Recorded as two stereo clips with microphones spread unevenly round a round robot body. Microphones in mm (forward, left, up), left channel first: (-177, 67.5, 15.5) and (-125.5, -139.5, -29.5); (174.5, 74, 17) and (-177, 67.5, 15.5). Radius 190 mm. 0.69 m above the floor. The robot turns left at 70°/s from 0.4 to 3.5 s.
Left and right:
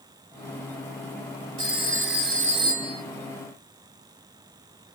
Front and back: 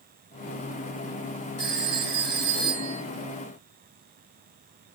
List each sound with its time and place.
1.6 s a phone ringing: 75° right, 3.5 m; by 3.0 s 175° right, 3.5 m